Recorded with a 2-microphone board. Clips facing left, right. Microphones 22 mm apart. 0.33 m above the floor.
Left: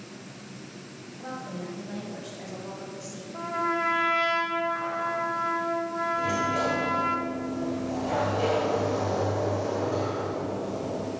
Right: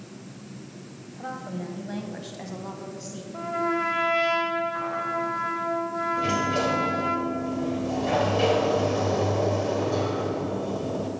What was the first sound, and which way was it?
A woman speaking, 35° right (ahead or behind).